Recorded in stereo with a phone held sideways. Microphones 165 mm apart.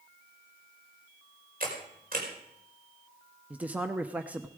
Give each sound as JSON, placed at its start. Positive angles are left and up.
{"t": 1.6, "sound": "a camera shutter", "side_deg": -60, "distance_m": 4.5}
{"t": 3.5, "sound": "a man speaking", "side_deg": -10, "distance_m": 0.8}